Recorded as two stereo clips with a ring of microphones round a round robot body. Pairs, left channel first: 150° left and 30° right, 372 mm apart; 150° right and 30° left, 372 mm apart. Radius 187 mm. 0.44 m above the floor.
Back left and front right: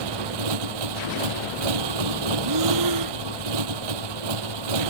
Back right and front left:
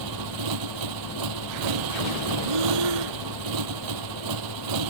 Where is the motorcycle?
5° right.